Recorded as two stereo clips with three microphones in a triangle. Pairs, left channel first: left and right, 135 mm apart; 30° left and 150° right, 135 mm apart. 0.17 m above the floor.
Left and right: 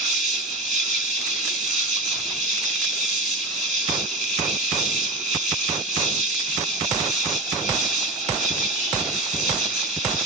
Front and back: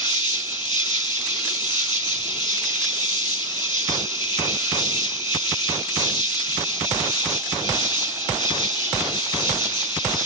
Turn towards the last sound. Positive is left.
turn(degrees=-5)